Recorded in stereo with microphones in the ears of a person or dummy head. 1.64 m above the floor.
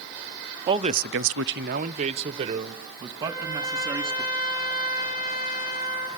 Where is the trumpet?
60° left (ahead or behind), 8.5 m.